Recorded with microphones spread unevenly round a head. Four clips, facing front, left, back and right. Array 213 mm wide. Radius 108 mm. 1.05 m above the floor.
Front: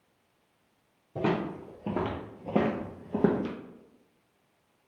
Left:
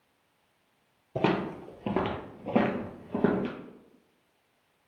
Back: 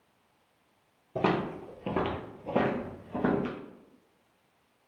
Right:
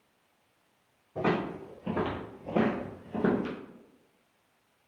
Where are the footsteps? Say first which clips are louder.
Left 2 dB, back 1 dB; 105° left, 1.4 m; by 3.5 s 5° left, 1.2 m.